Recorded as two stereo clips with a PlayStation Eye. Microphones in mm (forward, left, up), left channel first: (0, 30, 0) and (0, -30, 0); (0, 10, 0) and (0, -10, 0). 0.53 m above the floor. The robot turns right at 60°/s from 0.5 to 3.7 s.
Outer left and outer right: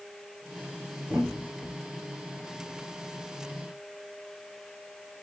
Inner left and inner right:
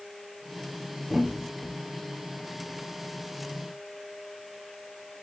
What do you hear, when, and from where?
1.1 s a thud: 20° right (ahead or behind), 3.5 m; by 1.8 s 25° left (ahead or behind), 3.5 m